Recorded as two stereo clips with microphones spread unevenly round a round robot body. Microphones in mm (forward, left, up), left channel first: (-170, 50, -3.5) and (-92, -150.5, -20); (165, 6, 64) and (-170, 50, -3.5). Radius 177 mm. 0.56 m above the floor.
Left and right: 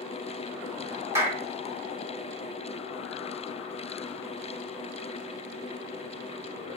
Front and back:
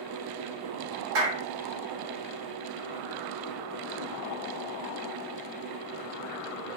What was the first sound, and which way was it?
A clap, 145° right.